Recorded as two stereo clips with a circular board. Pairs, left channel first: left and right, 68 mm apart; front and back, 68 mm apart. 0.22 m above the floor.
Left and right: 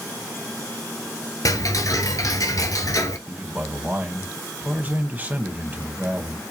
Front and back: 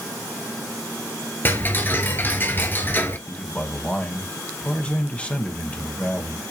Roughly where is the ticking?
Ahead left.